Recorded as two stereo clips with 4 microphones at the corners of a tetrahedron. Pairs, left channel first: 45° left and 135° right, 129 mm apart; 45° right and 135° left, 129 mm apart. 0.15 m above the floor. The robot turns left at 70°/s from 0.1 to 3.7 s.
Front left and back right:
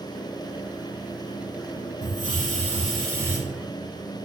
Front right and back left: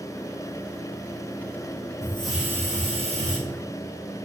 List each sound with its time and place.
2.0 s a hiss: 115° right, 6 m; by 3.4 s 150° left, 6 m